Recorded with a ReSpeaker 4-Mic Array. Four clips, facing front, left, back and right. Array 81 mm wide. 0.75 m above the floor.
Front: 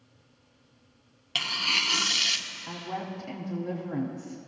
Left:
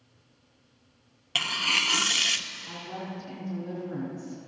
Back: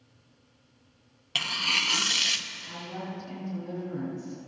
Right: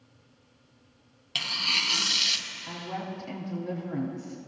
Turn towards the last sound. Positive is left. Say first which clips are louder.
# right 3 dB, front 3 dB
turn(degrees=-35)